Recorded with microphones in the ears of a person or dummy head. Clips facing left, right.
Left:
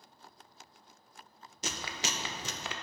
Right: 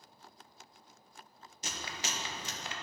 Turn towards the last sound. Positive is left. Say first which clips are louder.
# left 3 dB
turn(degrees=60)  # may be behind; listen again after turning